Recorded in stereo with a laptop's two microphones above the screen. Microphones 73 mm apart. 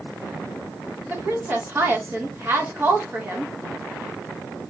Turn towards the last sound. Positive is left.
turn(degrees=-30)  # may be behind; listen again after turning